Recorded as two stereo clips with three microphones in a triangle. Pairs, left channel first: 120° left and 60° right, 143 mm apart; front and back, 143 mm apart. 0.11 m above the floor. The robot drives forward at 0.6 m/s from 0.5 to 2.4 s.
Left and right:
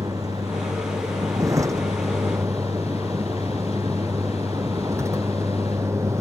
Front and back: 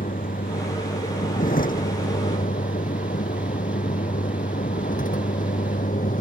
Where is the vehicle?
5° left; by 6.2 s 10° left.